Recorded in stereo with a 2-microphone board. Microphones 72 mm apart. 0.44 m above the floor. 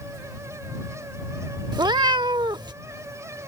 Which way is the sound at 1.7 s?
80° right.